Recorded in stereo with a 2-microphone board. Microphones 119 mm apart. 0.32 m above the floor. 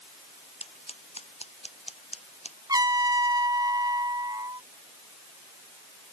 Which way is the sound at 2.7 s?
30° right (ahead or behind).